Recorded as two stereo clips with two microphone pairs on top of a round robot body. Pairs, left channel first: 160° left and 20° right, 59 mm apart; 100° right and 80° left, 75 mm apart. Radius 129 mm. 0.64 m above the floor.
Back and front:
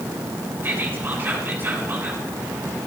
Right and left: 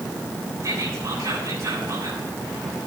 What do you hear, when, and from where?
0.6 s whispering: 35° left, 9.5 m